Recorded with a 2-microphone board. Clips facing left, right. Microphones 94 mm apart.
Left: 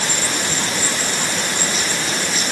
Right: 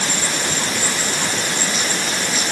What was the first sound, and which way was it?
Only background noise.